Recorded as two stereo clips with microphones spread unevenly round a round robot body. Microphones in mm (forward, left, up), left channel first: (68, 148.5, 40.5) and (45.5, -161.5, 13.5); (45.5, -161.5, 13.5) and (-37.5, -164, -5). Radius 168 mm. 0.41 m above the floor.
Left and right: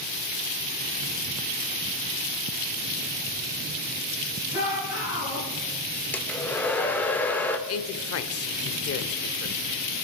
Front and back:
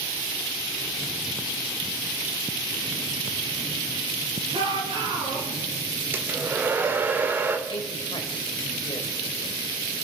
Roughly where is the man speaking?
Ahead left.